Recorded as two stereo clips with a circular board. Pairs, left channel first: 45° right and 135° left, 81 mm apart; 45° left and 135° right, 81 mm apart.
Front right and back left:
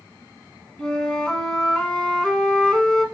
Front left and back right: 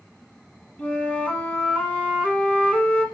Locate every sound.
0.8 s a flute: 10° left, 1.5 m